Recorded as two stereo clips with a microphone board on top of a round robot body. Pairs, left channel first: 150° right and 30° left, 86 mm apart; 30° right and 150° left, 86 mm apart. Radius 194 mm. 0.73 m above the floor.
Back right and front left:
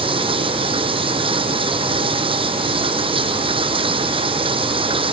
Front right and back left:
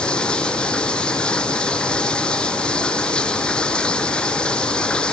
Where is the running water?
50° left.